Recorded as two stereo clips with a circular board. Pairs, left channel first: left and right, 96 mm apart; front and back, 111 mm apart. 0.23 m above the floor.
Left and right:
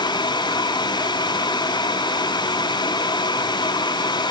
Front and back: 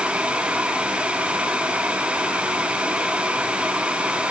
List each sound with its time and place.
Only background noise.